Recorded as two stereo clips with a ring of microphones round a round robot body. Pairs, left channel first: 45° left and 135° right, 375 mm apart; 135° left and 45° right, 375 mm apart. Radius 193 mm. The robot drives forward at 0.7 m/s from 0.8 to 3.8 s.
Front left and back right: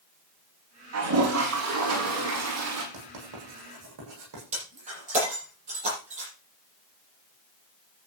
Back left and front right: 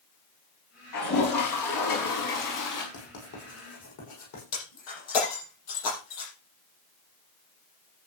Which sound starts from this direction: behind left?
Breaking glass, at 4.5 s.